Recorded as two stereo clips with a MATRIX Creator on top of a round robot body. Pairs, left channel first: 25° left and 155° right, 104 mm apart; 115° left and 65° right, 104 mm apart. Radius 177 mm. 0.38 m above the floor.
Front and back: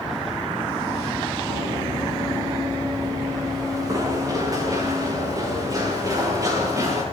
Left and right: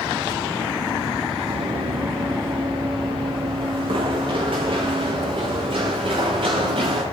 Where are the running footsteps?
105° right, 6 m; by 7.0 s 100° right, 10.5 m.